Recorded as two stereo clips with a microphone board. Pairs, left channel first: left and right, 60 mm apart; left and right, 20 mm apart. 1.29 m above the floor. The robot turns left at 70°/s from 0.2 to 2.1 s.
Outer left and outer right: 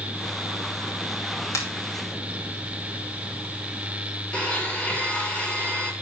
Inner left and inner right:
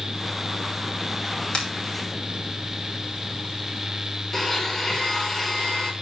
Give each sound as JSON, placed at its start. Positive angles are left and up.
{"t": 1.5, "sound": "a finger snap", "side_deg": 55, "distance_m": 2.5}
{"t": 4.3, "sound": "a blender", "side_deg": 20, "distance_m": 2.5}